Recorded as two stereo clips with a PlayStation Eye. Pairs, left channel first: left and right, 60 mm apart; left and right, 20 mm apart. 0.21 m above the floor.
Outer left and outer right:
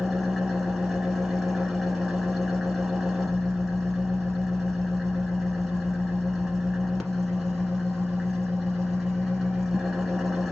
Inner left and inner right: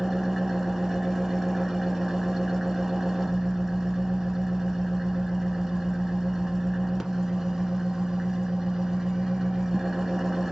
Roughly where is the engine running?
Centre.